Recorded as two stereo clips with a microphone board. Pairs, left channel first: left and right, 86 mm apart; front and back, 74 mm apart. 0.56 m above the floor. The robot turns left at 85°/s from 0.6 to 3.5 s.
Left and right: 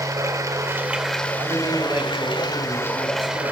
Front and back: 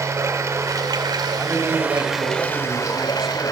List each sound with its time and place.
0.0 s running water: 135° right, 1.6 m; by 3.5 s 25° right, 1.6 m
1.4 s a man speaking: 110° right, 3 m; by 3.5 s 75° left, 3 m